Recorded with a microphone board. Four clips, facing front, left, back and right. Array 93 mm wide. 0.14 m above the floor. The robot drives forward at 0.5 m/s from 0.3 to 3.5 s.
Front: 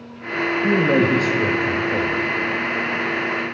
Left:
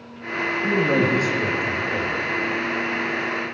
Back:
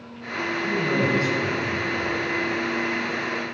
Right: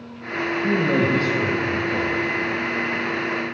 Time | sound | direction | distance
0.6 | a man speaking | 5° left | 3 m